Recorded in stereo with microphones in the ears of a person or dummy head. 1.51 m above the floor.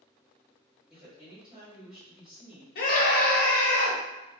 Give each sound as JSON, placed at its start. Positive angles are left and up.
{"t": 0.9, "sound": "a woman speaking", "side_deg": -5, "distance_m": 1.5}
{"t": 2.8, "sound": "a scream", "side_deg": 55, "distance_m": 0.8}